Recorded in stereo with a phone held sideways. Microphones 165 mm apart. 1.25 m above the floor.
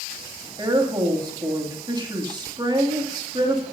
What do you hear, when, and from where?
0.6 s a woman speaking: 25° right (ahead or behind), 2.5 m